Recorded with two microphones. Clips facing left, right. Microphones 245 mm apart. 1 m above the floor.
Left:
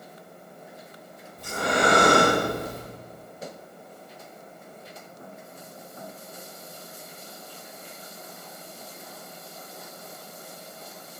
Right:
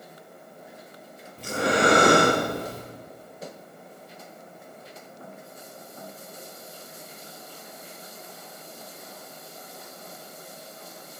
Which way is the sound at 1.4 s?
75° right (ahead or behind).